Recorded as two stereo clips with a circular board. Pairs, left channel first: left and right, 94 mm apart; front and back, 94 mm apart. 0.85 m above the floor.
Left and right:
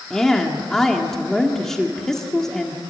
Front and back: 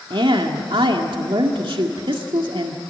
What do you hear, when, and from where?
0.1 s a woman speaking: 175° left, 1.9 m